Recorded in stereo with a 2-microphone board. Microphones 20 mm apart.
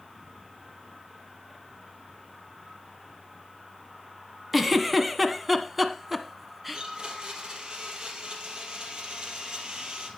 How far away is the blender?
About 2.5 m.